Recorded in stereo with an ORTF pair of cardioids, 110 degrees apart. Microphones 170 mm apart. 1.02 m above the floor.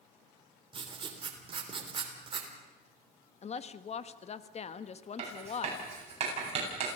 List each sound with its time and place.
0.7 s writing: 30° right, 3.5 m
3.4 s a woman speaking: 40° left, 1.3 m
5.2 s writing: 35° right, 9 m